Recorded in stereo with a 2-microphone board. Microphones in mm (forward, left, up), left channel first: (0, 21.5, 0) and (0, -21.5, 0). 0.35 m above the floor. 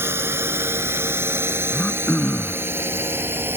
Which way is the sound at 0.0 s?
75° right (ahead or behind).